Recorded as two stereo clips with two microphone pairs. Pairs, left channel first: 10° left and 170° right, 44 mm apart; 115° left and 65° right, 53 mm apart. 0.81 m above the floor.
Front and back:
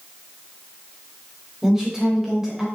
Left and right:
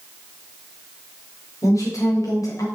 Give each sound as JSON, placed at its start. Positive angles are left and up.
{"t": 1.6, "sound": "a woman speaking", "azimuth_deg": 110, "distance_m": 3.5}